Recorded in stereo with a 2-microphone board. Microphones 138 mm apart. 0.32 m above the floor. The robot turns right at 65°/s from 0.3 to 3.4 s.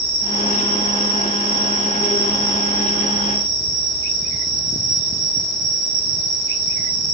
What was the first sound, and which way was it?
An insect, 155° left.